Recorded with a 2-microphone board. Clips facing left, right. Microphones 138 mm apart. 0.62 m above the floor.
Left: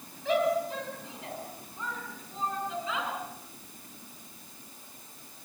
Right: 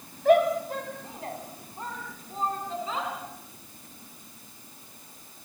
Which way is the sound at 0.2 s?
55° right (ahead or behind).